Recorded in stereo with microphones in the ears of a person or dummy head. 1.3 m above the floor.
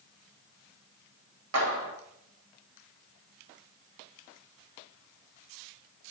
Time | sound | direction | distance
1.5 | a clap | 85° right | 2 m